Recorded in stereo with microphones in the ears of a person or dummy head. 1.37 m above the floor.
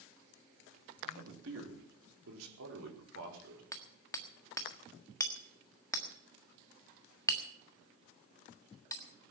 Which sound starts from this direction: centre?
Hammering, at 3.7 s.